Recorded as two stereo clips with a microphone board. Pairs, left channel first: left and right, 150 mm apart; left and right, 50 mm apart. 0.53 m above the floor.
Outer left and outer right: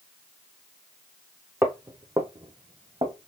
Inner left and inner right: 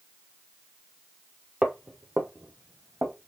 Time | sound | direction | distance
1.6 | footsteps | 15° right (ahead or behind) | 0.6 m